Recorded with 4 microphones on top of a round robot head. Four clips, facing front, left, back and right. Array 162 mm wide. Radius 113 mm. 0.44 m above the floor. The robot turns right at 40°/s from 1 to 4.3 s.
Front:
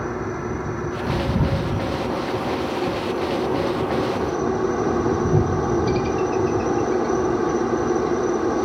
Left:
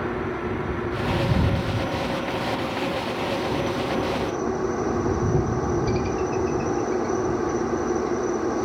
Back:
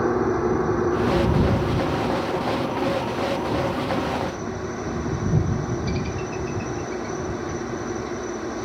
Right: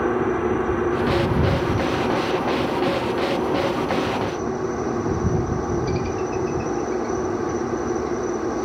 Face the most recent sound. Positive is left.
turn(degrees=0)